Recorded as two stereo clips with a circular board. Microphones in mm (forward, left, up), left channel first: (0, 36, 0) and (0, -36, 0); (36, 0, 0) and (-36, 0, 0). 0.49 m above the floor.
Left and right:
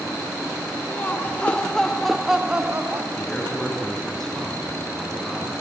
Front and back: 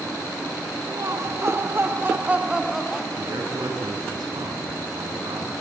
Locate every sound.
0.9 s laughter: 150° left, 2 m; by 3.1 s 80° right, 1.4 m
3.2 s a man speaking: 175° left, 5 m